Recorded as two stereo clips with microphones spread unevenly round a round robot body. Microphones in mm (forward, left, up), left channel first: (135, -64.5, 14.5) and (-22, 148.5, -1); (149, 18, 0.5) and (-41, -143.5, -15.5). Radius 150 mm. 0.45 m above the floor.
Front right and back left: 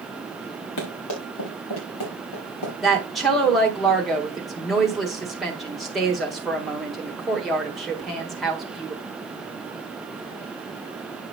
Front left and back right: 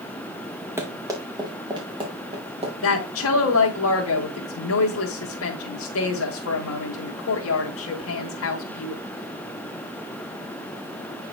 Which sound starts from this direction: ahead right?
Running footsteps, at 0.8 s.